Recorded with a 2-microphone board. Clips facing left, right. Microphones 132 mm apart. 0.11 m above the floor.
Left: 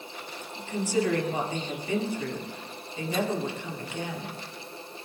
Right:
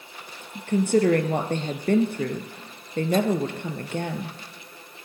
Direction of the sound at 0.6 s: 60° right (ahead or behind).